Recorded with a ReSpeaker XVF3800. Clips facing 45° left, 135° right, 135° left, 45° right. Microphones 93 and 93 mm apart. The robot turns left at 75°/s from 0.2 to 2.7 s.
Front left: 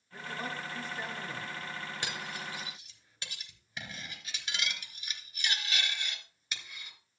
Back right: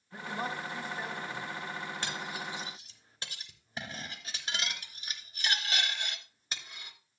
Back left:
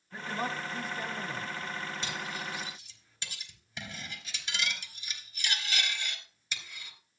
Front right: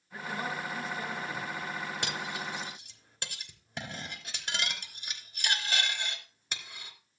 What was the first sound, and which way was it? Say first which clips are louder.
A man speaking: back right 3 dB, back left 1 dB; 160° right.